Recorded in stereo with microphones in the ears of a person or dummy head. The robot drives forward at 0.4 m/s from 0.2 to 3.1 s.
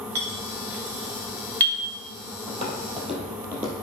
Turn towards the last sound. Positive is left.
turn(degrees=-20)  # may be behind; listen again after turning